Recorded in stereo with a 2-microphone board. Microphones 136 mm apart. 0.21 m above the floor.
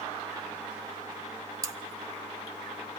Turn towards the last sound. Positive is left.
turn(degrees=-25)  # may be behind; listen again after turning